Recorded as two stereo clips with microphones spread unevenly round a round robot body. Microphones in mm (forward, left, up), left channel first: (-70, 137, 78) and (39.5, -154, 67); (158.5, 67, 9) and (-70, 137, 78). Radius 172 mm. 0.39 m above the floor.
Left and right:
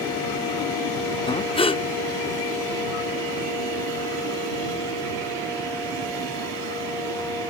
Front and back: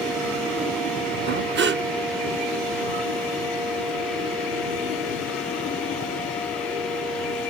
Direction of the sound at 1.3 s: 170° left.